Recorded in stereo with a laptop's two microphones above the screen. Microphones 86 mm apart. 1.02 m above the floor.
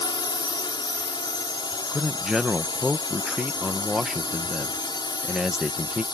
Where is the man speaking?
5° right (ahead or behind).